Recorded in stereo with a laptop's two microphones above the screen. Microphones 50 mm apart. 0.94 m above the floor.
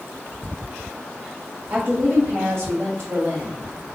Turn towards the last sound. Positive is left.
turn(degrees=-75)  # may be behind; listen again after turning